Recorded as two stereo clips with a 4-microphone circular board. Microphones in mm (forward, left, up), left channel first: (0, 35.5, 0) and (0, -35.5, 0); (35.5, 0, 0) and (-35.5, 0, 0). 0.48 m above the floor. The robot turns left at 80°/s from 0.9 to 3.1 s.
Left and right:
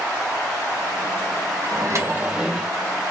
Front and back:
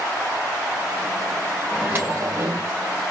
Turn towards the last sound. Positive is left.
turn(degrees=145)